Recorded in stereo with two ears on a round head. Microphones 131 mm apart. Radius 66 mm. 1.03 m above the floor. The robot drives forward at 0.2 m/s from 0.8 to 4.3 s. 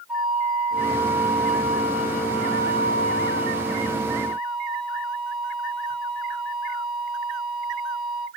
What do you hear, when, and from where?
0.1 s a flute: 5° right (ahead or behind), 1.4 m; by 8.3 s centre (ahead or behind), 2 m